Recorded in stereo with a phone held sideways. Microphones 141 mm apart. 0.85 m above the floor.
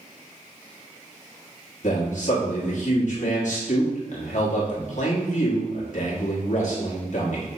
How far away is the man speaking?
About 1.3 m.